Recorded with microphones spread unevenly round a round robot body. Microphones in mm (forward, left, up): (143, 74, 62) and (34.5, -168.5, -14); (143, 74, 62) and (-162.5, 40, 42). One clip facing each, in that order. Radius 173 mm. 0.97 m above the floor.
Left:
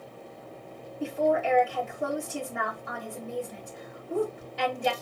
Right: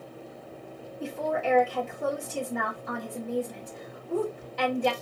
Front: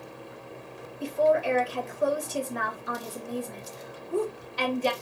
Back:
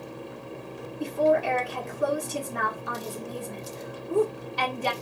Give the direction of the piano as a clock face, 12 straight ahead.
I don't hear a piano.